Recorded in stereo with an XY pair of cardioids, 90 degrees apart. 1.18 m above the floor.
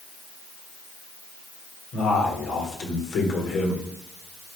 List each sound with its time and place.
1.9 s a man speaking: 70° left, 4 m